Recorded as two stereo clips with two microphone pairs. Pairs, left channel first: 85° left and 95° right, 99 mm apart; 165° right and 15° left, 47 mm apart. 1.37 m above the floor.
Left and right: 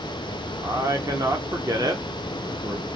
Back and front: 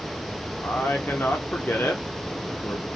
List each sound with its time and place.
0.6 s a man speaking: 145° right, 0.8 m